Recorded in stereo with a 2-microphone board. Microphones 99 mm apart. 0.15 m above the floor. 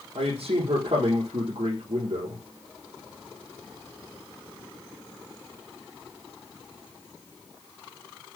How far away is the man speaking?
About 4.5 m.